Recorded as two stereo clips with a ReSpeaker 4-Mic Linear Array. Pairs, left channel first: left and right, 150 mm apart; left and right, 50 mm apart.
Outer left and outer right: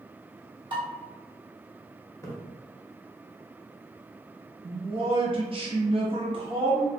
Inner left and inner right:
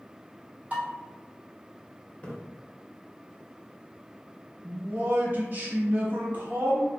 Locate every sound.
0.7 s dishes clattering: 35° right (ahead or behind), 1.2 m
2.2 s a splash: 20° left (ahead or behind), 0.6 m
4.6 s a man speaking: 35° right (ahead or behind), 0.8 m